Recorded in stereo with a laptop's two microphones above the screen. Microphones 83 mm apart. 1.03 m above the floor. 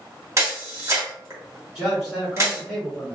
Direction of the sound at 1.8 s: 10° right (ahead or behind).